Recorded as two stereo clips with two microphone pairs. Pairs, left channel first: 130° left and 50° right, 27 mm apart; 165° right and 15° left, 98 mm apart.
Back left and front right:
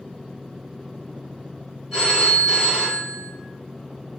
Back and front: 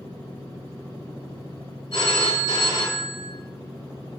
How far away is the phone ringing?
About 1.6 m.